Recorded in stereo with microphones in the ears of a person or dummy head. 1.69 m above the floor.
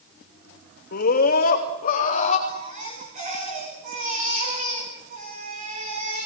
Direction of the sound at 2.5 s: 45° right (ahead or behind).